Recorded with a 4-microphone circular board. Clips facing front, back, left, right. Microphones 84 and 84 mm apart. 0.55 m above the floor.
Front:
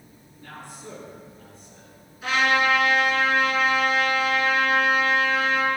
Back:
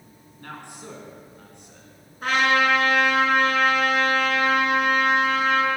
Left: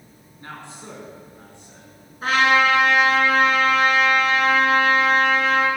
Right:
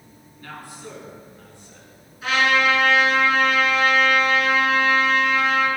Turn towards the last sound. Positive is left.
turn(degrees=140)